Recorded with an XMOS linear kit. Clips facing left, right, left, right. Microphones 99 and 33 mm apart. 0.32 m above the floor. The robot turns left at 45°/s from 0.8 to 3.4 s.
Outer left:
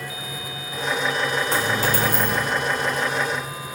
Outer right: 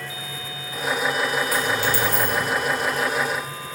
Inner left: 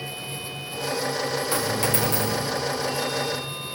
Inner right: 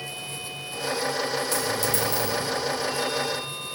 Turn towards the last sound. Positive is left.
turn(degrees=70)